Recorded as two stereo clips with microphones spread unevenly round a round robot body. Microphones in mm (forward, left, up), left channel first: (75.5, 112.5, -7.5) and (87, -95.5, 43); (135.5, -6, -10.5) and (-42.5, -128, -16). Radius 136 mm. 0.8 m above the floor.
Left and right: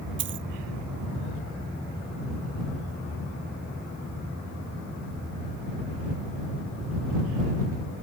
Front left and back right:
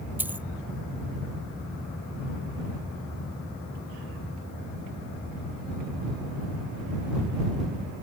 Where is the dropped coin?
65° right.